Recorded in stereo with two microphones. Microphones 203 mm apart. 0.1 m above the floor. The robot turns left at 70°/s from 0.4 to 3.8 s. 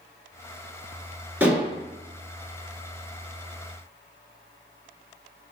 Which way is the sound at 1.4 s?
10° right (ahead or behind).